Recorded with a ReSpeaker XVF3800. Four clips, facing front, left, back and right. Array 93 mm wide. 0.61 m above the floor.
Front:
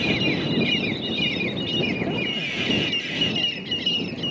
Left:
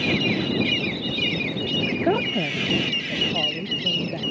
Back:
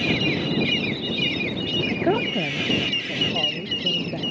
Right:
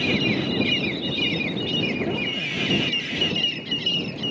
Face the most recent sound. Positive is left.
turn(degrees=130)